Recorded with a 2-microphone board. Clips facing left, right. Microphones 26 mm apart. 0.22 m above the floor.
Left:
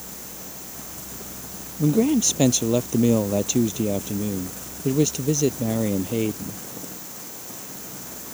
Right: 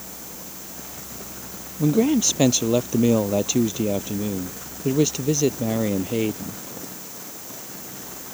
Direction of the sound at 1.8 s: 10° right (ahead or behind).